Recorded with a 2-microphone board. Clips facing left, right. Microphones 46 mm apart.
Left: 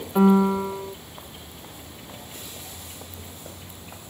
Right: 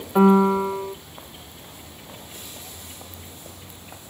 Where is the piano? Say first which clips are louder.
Right 2 dB; 20° right (ahead or behind), 0.6 m.